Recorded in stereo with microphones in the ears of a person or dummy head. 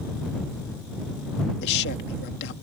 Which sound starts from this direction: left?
A man speaking, at 1.6 s.